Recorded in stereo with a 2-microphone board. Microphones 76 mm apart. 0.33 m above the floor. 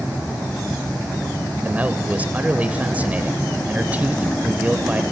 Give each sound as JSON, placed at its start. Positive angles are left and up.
{"t": 1.6, "sound": "a man speaking", "side_deg": -20, "distance_m": 1.0}